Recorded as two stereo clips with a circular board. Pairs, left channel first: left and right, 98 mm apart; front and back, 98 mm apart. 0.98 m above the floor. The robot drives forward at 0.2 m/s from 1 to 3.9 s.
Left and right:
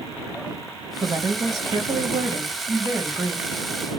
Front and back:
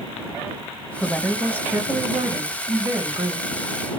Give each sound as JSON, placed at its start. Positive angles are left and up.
{"t": 1.0, "sound": "a woman speaking", "azimuth_deg": -105, "distance_m": 0.7}